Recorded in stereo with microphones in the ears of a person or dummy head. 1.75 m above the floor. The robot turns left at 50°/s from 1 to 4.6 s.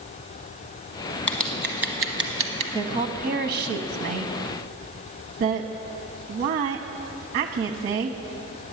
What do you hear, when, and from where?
1.3 s scissors: 10° left (ahead or behind), 1.1 m; by 2.6 s 40° right (ahead or behind), 1.1 m
2.7 s a woman speaking: 30° right (ahead or behind), 0.8 m; by 8.2 s 40° right (ahead or behind), 0.8 m